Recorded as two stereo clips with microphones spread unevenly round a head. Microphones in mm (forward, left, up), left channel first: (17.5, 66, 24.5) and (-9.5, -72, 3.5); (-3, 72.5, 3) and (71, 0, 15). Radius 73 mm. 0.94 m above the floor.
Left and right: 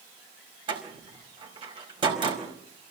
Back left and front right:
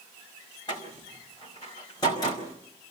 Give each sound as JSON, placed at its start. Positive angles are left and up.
{"t": 0.7, "sound": "a door slam", "azimuth_deg": -160, "distance_m": 4.5}